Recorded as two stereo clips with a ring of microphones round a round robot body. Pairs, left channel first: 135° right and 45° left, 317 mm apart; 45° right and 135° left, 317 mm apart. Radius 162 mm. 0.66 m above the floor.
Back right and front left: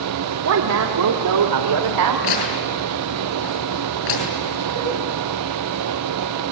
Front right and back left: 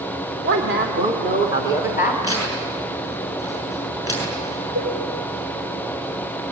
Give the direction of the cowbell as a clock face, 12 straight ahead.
5 o'clock.